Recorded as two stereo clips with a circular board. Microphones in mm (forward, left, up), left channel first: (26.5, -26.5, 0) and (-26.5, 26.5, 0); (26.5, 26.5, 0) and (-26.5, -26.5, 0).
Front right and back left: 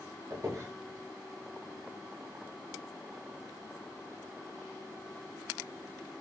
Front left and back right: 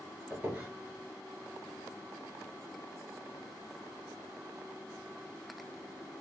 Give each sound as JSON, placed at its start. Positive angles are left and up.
{"t": 0.3, "sound": "a squeak", "azimuth_deg": 165, "distance_m": 1.2}